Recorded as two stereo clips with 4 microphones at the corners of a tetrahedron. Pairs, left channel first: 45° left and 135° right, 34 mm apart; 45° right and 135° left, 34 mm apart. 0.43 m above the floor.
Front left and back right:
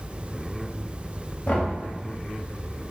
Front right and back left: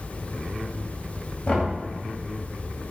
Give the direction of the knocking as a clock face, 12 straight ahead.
12 o'clock.